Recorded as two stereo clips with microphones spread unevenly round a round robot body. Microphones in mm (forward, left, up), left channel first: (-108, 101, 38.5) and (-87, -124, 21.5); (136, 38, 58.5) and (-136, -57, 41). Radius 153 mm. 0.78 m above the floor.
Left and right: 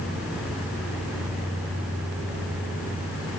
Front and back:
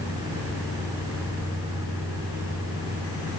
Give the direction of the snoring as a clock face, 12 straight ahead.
I don't hear snoring.